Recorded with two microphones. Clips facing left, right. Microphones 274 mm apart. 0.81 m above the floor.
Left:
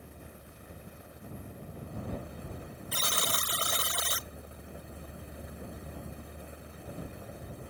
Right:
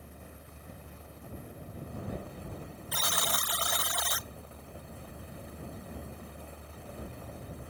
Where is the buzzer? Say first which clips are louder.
Even; 30° left (ahead or behind).